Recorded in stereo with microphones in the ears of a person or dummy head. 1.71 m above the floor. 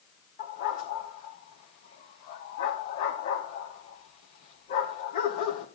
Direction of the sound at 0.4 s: 35° left (ahead or behind).